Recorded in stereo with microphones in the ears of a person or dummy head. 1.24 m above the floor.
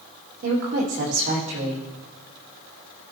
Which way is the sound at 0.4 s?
65° right (ahead or behind).